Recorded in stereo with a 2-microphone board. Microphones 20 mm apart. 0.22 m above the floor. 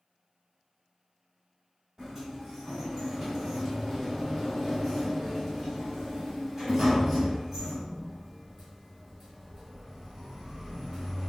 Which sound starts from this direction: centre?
A sliding door, at 2.0 s.